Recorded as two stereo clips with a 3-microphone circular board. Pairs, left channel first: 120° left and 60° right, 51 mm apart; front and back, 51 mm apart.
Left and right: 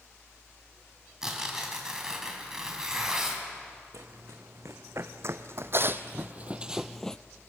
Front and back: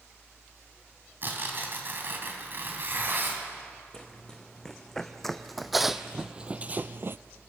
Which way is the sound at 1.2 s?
140° right.